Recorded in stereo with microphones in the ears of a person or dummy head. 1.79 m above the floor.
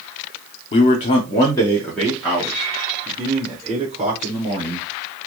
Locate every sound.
0.7 s a man speaking: 35° left (ahead or behind), 0.8 m; by 4.9 s 25° right (ahead or behind), 2 m